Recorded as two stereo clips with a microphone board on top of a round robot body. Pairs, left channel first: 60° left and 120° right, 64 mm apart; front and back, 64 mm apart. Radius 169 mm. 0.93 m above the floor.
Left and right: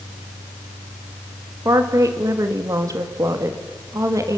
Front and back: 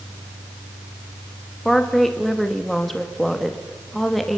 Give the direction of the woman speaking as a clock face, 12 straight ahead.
3 o'clock.